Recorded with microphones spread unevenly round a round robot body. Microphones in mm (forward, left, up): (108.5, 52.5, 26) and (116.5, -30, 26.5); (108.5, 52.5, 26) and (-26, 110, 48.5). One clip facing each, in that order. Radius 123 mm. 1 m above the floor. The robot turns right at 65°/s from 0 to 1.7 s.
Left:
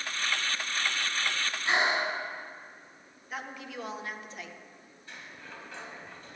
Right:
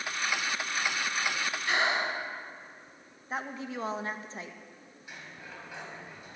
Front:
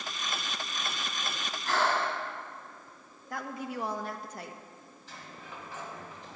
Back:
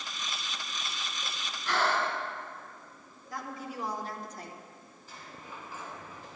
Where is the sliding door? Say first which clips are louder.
Even, even; 5° right, 3 m.